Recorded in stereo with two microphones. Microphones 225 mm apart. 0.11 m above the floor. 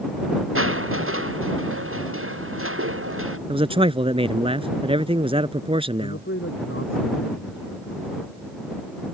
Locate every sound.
0.6 s crushing: 65° right (ahead or behind)
3.5 s a man speaking: 25° right (ahead or behind)
6.0 s a man speaking: 60° left (ahead or behind)